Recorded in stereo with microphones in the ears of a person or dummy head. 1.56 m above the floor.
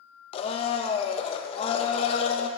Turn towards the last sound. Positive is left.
turn(degrees=35)  # may be behind; listen again after turning